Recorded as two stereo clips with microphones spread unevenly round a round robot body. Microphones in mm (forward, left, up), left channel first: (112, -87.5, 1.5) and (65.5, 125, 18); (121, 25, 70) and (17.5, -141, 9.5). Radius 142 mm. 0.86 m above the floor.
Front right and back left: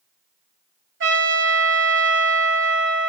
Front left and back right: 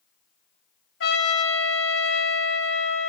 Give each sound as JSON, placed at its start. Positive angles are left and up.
{"t": 1.0, "sound": "a trumpet", "azimuth_deg": 80, "distance_m": 2.5}